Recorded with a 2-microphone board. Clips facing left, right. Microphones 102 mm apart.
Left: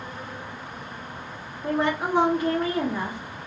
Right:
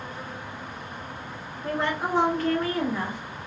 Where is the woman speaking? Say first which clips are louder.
Left 3 dB; 15° left (ahead or behind), 0.8 m.